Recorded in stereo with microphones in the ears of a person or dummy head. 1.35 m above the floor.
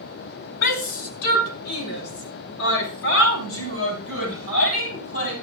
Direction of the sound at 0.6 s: 80° left.